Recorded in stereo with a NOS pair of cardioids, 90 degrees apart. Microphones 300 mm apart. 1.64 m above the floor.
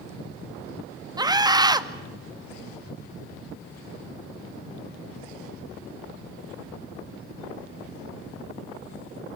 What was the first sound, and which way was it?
A scream, 15° right.